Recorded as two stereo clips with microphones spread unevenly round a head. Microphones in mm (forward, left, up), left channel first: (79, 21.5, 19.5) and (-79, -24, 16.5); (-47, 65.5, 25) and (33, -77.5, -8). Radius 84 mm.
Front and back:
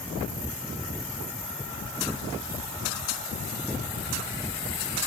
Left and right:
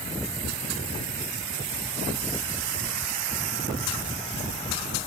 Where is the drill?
I don't hear a drill.